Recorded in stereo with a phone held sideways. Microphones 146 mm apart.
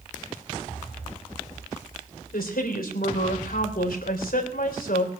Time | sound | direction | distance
2.3 | a woman speaking | 80° left | 3.5 m